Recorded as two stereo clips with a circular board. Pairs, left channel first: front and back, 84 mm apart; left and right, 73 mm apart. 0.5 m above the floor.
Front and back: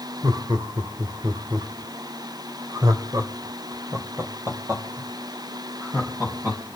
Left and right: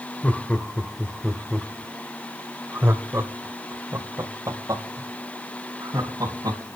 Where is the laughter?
155° left, 2 m; by 6.6 s 115° right, 4.5 m.